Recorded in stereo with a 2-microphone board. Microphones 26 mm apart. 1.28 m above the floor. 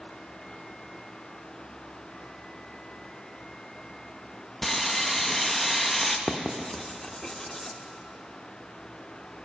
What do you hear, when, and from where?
4.6 s sawing: 10° left (ahead or behind), 0.7 m
6.3 s writing: 20° left (ahead or behind), 0.9 m